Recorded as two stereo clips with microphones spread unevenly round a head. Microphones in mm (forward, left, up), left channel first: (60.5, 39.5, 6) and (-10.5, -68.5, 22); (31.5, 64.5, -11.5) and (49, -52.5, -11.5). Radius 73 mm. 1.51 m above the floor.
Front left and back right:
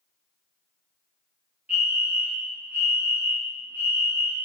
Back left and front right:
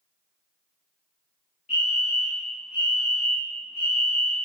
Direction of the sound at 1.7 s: 150° left.